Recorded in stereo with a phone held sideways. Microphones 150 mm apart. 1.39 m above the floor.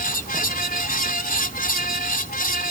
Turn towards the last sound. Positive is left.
turn(degrees=75)  # may be behind; listen again after turning